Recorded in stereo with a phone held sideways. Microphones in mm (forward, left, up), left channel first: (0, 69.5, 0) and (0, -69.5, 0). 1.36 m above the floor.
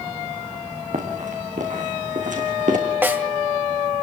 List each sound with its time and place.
0.9 s running footsteps: 70° right (ahead or behind), 5.5 m; by 2.8 s 75° right (ahead or behind), 4.5 m
3.0 s a snare drum: 15° right (ahead or behind), 1.9 m